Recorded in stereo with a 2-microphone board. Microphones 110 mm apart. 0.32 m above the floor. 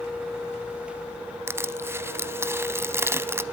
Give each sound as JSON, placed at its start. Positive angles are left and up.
{"t": 1.5, "sound": "crushing", "side_deg": -20, "distance_m": 0.6}